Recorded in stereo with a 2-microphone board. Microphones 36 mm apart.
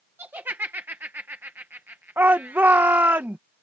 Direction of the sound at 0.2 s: 70° right (ahead or behind).